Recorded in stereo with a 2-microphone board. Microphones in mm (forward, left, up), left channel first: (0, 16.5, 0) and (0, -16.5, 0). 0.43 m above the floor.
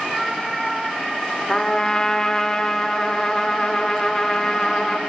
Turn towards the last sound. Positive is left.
turn(degrees=20)  # may be behind; listen again after turning